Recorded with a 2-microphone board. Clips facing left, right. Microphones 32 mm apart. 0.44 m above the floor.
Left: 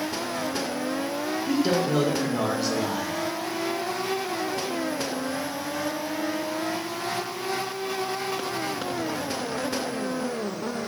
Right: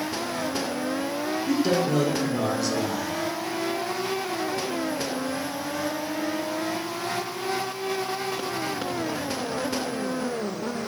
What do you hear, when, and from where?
1.5 s a man speaking: 10° left (ahead or behind), 0.8 m